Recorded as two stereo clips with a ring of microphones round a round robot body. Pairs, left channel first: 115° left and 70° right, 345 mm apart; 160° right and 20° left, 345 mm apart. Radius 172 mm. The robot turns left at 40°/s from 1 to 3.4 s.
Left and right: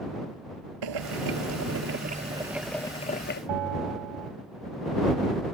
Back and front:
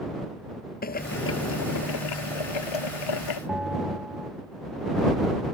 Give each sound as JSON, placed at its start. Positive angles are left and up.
{"t": 0.8, "sound": "boiling", "azimuth_deg": -90}
{"t": 3.5, "sound": "a bell", "azimuth_deg": -65}